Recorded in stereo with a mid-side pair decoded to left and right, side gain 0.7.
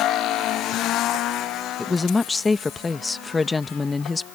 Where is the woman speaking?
20° left.